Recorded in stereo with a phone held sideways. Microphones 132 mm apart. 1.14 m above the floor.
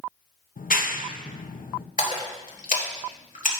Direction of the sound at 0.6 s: 85° left.